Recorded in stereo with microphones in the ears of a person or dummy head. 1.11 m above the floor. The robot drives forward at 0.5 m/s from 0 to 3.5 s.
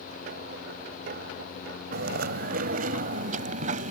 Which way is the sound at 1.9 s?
55° right (ahead or behind).